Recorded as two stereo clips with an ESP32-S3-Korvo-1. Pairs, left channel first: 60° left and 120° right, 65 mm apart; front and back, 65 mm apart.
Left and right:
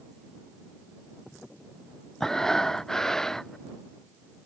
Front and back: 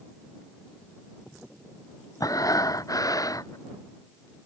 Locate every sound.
2.2 s breathing: 20° right